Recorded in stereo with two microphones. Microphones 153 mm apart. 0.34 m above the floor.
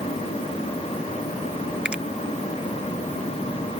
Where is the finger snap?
5° right (ahead or behind).